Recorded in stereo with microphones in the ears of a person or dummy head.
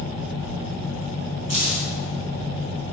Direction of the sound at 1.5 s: 45° left (ahead or behind).